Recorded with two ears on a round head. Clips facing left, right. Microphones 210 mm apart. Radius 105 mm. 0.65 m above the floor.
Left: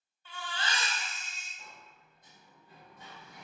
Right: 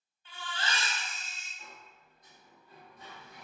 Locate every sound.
0.2 s a baby crying: 35° left (ahead or behind), 1.6 m
1.6 s a sliding door: 25° left (ahead or behind), 1.8 m